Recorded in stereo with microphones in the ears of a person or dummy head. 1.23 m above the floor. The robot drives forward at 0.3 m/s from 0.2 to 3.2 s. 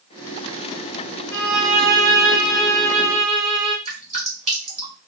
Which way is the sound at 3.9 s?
30° right (ahead or behind).